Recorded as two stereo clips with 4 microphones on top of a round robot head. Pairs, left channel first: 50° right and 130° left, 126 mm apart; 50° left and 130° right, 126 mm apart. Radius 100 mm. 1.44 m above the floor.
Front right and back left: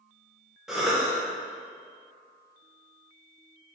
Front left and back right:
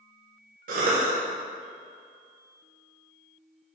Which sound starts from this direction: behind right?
A cough, at 0.7 s.